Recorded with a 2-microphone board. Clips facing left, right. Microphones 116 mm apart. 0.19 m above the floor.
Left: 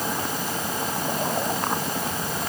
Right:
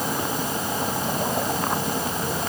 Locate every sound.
Only background noise.